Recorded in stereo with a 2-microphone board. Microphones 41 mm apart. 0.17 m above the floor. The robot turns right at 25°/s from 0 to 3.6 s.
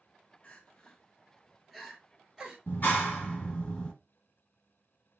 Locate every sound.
0.4 s crying: 30° left (ahead or behind), 0.9 m; by 2.6 s 20° right (ahead or behind), 0.9 m
2.7 s a clap: 45° left (ahead or behind), 1.5 m; by 3.9 s 35° left (ahead or behind), 1.5 m